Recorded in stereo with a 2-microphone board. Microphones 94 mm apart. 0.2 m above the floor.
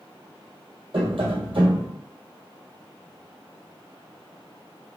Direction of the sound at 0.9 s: 65° right (ahead or behind).